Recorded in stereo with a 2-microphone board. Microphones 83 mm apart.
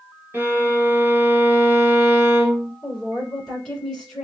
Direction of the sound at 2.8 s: 10° left (ahead or behind).